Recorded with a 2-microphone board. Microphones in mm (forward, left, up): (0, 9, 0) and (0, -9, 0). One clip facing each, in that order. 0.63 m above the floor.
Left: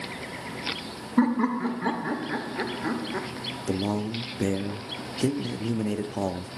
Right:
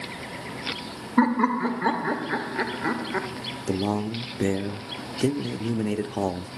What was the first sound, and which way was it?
Laughter, 20° right (ahead or behind).